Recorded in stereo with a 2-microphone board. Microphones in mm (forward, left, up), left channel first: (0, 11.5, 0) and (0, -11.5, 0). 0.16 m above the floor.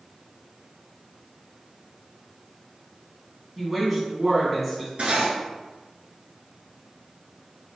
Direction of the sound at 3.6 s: 10° right (ahead or behind).